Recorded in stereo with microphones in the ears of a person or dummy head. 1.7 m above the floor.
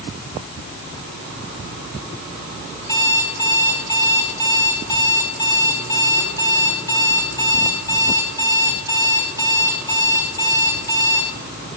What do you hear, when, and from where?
2.8 s an alarm clock: 25° left (ahead or behind), 4.5 m